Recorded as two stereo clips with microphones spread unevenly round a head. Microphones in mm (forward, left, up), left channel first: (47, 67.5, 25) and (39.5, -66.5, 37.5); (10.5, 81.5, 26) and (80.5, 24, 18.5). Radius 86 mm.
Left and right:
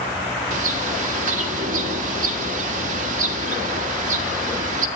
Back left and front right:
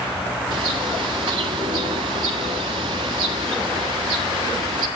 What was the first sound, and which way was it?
A bird, 95° right.